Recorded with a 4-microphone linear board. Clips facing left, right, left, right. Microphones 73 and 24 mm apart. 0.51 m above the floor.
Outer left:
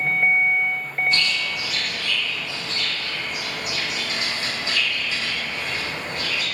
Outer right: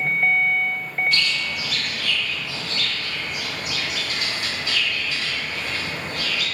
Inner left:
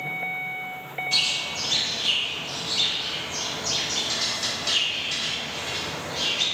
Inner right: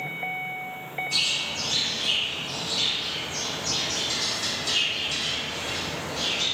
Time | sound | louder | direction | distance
1.1 | a bird | even, inner left 1 dB | 25° left (ahead or behind) | 0.8 m